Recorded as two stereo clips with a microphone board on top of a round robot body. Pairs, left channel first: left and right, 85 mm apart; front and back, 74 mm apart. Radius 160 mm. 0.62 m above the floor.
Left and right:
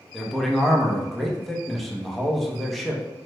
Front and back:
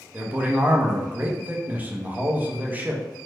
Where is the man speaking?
175° left, 0.8 m.